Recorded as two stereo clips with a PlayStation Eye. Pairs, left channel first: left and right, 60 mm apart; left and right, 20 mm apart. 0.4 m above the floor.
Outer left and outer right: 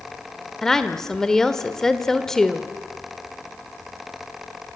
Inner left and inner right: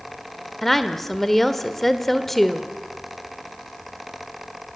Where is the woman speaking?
10° left (ahead or behind), 1.4 m.